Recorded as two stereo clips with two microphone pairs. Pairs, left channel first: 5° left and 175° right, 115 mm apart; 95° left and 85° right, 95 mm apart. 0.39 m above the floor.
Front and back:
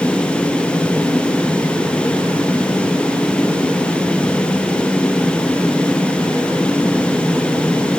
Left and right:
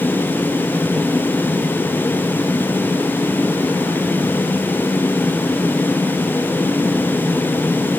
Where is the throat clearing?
I don't hear throat clearing.